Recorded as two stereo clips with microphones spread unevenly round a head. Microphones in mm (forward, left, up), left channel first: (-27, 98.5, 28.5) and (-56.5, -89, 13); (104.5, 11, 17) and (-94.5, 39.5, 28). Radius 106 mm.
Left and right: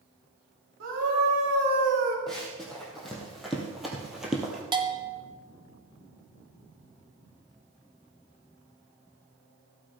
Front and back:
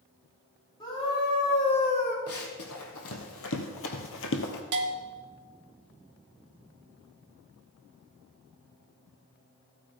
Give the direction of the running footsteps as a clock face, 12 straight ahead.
12 o'clock.